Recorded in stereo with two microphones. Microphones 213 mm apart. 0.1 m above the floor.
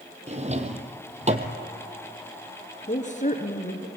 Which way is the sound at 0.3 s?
30° right (ahead or behind).